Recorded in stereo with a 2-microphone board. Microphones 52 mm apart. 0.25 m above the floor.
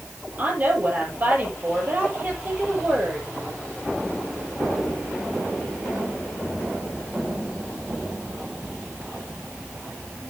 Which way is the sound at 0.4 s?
35° right (ahead or behind).